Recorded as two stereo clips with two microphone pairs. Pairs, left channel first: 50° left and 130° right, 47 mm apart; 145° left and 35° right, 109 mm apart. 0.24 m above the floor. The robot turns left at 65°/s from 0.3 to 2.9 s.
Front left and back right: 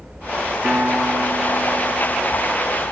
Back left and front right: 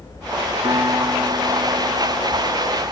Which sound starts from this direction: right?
A piano, at 0.6 s.